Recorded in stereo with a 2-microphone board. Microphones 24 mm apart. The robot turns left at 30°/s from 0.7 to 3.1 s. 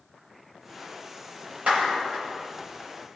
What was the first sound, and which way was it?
A clap, 60° right (ahead or behind).